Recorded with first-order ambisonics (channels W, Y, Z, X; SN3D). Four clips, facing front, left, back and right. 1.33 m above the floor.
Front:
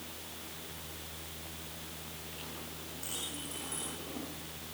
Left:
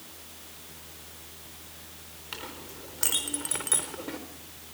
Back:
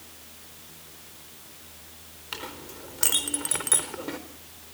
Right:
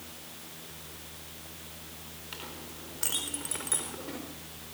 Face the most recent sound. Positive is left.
turn(degrees=165)